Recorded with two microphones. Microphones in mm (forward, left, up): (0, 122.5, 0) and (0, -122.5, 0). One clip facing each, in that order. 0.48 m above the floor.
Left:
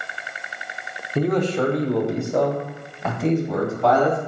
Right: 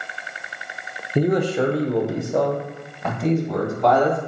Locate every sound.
1.1 s a man speaking: 15° right (ahead or behind), 0.7 m; by 4.2 s 5° left (ahead or behind), 2.5 m